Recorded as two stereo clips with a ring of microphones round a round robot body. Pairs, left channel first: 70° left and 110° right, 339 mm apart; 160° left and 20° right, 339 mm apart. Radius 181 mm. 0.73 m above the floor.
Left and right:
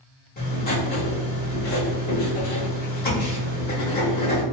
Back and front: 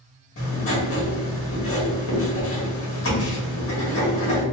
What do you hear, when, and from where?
0.4 s writing: 120° left, 1.5 m